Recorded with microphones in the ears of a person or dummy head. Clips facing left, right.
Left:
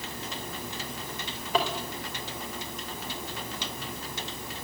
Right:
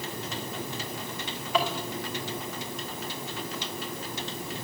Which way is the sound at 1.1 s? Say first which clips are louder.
Even; 35° left (ahead or behind).